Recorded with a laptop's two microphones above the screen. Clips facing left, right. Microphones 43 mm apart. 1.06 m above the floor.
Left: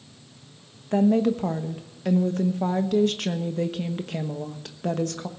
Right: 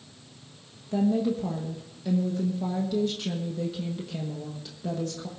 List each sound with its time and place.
0.9 s a woman speaking: 65° left (ahead or behind), 1.1 m